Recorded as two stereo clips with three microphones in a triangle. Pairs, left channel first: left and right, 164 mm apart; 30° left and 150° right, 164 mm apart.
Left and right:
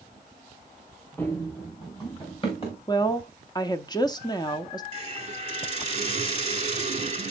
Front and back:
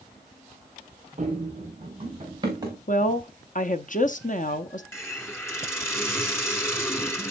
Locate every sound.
1.2 s running footsteps: 165° left, 4 m; by 2.8 s 140° left, 4.5 m
2.9 s a woman speaking: 35° left, 0.8 m
4.9 s a hiss: 45° right, 1.3 m